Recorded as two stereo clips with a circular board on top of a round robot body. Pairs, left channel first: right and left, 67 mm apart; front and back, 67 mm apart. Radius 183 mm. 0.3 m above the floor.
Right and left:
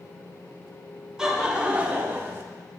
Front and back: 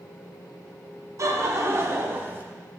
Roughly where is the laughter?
Behind.